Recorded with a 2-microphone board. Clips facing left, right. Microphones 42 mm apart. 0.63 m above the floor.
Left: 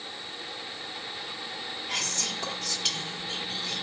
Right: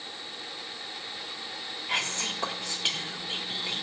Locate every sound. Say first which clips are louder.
1.9 s whispering: right 4 dB; 25° right (ahead or behind), 1.1 m